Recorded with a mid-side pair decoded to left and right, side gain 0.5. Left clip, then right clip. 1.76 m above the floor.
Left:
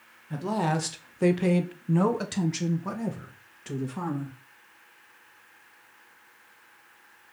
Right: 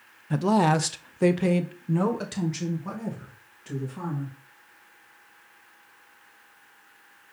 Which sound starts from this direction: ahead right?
A woman speaking, at 0.3 s.